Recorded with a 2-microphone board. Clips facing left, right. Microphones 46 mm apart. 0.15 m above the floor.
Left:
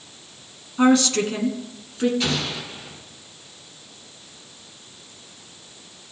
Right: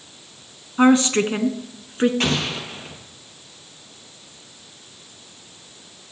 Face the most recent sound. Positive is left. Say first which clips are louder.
# right 3 dB
turn(degrees=-55)  # may be behind; listen again after turning